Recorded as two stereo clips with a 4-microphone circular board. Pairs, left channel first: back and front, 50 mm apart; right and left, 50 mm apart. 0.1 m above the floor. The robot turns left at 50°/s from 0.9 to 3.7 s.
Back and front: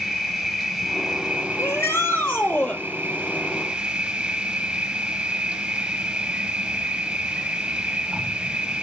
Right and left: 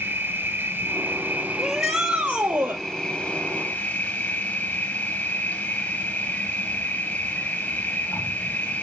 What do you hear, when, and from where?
0.0 s an insect: 80° left, 3 m; by 8.8 s 60° right, 3 m
1.6 s a shout: 175° right, 2 m; by 2.8 s 125° left, 2 m